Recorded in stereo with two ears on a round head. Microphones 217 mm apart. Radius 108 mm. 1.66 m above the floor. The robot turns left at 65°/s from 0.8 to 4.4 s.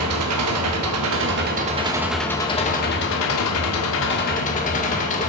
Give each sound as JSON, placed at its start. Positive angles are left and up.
{"t": 0.0, "sound": "an engine running", "azimuth_deg": -90, "distance_m": 1.6}